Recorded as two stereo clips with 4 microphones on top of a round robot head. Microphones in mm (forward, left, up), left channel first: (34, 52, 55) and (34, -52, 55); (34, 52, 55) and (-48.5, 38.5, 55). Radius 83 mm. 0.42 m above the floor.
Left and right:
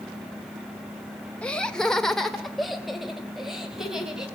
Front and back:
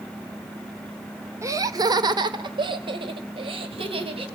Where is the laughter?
160° left, 1.3 m; by 4.2 s 175° right, 3.5 m.